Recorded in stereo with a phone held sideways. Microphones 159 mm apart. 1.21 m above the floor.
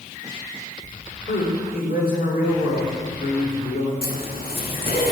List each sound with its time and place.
1.3 s a man speaking: 80° left, 4 m
4.0 s a zipper: 75° left (ahead or behind), 1.8 m